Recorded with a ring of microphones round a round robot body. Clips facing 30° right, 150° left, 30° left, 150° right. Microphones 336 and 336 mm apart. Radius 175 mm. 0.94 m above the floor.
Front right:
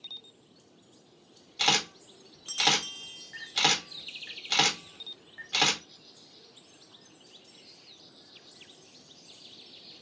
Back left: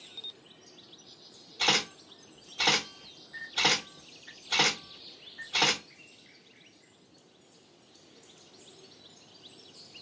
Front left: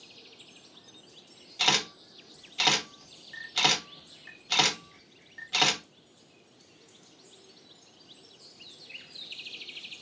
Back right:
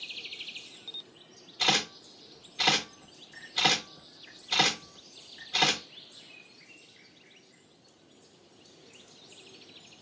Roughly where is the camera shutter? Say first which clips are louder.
Even, back right 1 dB; ahead.